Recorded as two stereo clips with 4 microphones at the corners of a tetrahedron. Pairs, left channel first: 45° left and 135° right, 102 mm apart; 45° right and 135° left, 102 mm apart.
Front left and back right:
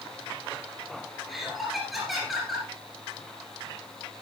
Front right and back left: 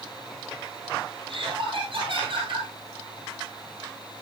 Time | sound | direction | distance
1.3 | laughter | 135° left | 3 m